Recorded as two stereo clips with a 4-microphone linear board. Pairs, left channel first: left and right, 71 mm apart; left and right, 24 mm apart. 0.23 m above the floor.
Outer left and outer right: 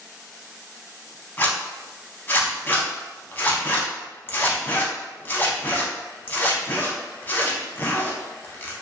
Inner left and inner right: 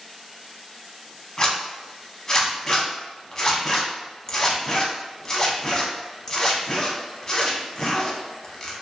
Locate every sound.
1.4 s a zipper: 30° left (ahead or behind), 0.6 m